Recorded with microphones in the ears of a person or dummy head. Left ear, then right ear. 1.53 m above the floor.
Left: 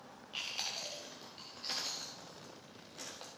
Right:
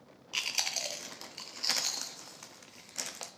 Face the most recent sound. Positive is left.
turn(degrees=-45)  # may be behind; listen again after turning